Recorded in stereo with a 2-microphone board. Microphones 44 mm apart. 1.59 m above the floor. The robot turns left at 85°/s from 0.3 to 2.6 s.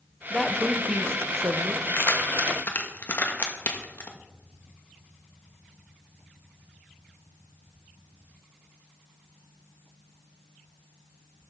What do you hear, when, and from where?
0.3 s a woman speaking: 15° left, 0.9 m; by 1.9 s 120° right, 0.9 m
2.0 s keys jangling: 55° left (ahead or behind), 1.3 m; by 4.1 s 45° left (ahead or behind), 1.3 m